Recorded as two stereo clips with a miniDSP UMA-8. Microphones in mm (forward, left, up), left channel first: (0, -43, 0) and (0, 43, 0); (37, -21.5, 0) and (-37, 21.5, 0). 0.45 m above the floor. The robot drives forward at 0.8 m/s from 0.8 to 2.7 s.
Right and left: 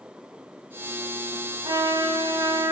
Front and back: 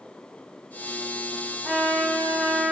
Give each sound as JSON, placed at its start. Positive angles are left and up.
{"t": 1.6, "sound": "a trumpet", "azimuth_deg": 60, "distance_m": 4.0}